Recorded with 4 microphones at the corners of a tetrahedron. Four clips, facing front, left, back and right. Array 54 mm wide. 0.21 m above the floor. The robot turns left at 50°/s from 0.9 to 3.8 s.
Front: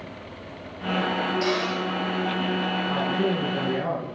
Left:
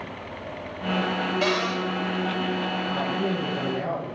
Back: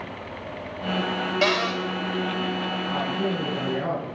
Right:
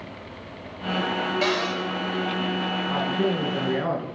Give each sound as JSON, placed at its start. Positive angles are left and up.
{"t": 1.4, "sound": "a cupboard door", "azimuth_deg": 180, "distance_m": 5.5}
{"t": 2.9, "sound": "a man speaking", "azimuth_deg": -45, "distance_m": 3.5}